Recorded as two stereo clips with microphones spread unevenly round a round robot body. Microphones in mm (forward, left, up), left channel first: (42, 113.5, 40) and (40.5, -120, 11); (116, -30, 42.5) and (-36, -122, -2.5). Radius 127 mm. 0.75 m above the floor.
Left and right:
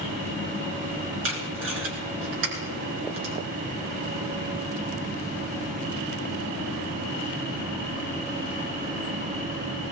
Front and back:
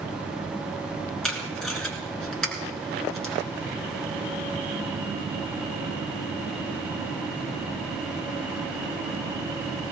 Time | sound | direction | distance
1.2 | tape being pulled | 55° right | 3.5 m